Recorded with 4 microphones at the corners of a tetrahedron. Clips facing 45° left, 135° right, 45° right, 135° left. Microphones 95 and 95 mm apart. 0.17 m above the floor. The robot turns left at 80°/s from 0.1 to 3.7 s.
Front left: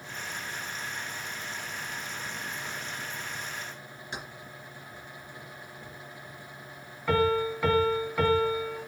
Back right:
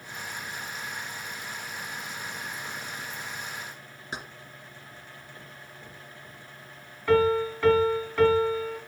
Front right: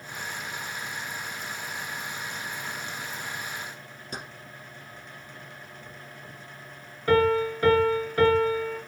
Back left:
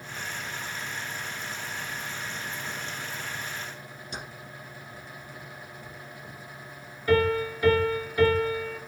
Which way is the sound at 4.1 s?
80° right.